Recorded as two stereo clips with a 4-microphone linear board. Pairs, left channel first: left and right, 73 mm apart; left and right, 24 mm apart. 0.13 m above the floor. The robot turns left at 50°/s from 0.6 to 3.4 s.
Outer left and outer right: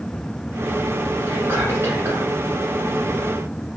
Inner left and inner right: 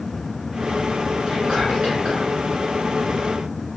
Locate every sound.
1.3 s whispering: 55° right, 1.7 m; by 2.3 s 105° right, 1.7 m